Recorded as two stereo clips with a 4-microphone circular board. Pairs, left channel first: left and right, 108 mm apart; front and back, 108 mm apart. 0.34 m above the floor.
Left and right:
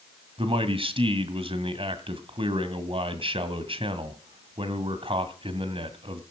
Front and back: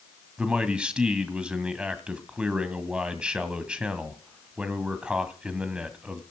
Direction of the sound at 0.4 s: 100° right.